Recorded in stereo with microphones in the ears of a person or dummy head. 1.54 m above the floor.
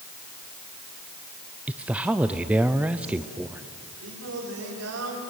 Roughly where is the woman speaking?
Centre.